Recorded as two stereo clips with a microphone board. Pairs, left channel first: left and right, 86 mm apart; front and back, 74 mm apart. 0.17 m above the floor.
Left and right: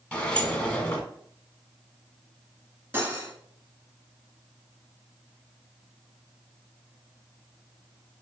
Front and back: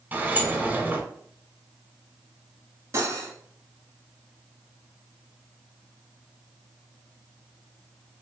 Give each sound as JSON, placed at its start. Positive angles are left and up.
{"t": 0.1, "sound": "a sliding door", "azimuth_deg": 150, "distance_m": 1.2}
{"t": 2.9, "sound": "cutlery clinking", "azimuth_deg": -150, "distance_m": 1.1}